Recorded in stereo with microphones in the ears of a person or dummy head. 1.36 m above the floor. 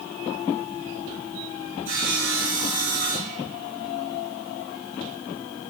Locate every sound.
1.9 s sawing: 35° right (ahead or behind), 2.5 m